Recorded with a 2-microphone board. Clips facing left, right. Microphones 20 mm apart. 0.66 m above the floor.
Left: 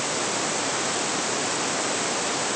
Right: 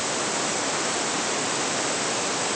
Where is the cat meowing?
I don't hear a cat meowing.